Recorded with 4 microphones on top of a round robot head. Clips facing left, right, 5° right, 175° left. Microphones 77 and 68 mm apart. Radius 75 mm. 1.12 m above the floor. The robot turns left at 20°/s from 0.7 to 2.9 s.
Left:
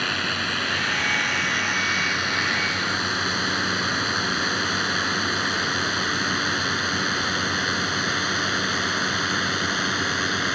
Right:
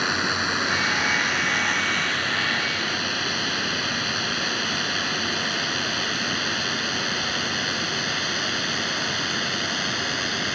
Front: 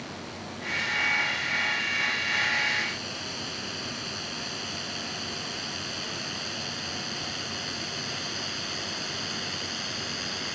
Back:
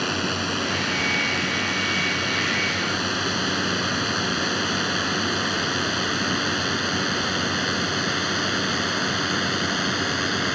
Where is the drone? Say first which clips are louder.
Right 2 dB, back 13 dB; 165° right; by 10.6 s 145° left.